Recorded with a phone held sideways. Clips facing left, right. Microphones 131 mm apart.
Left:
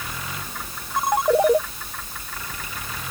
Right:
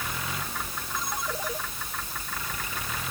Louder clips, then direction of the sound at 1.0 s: Left 16 dB; 65° left (ahead or behind).